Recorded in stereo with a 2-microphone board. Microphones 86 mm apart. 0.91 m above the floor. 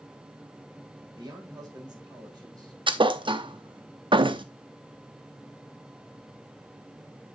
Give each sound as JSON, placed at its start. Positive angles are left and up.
{"t": 1.2, "sound": "a man speaking", "side_deg": -50, "distance_m": 3.5}
{"t": 2.9, "sound": "a thud", "side_deg": -70, "distance_m": 0.6}